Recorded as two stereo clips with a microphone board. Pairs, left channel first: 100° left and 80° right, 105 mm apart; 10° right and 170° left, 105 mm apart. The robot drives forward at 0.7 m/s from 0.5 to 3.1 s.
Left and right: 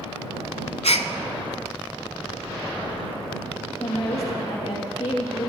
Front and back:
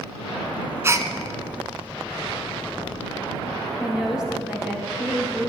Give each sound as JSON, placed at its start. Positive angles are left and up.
{"t": 0.8, "sound": "a gasp", "azimuth_deg": 105, "distance_m": 0.7}
{"t": 3.8, "sound": "a woman speaking", "azimuth_deg": 90, "distance_m": 6.0}